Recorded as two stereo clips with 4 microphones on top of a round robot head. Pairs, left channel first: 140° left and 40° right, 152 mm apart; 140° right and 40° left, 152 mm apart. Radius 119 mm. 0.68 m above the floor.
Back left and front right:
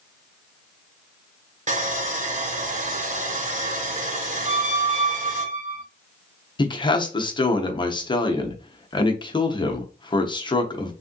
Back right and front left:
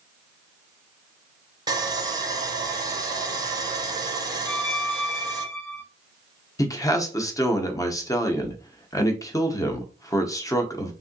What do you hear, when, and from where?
1.7 s sawing: 20° right, 0.9 m
4.5 s a squeak: 90° right, 1.6 m
6.6 s a man speaking: 170° left, 0.8 m